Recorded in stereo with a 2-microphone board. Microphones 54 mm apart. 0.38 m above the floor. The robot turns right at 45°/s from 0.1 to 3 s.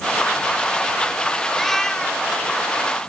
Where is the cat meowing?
Straight ahead; by 2.3 s 35° left.